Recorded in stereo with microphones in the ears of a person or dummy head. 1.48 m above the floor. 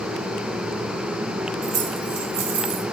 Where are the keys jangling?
60° right (ahead or behind), 3 m; by 2.8 s 75° right (ahead or behind), 2.5 m.